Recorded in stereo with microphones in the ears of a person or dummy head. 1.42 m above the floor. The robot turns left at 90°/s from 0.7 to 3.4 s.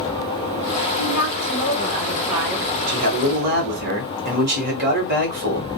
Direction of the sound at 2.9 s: 75° right.